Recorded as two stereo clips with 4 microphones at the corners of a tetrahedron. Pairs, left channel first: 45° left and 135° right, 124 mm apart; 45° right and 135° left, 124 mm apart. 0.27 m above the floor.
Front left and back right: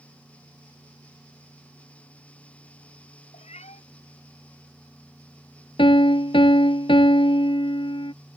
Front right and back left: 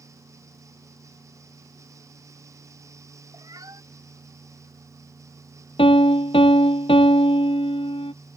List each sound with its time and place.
3.3 s a cat meowing: 75° left
5.8 s a piano: straight ahead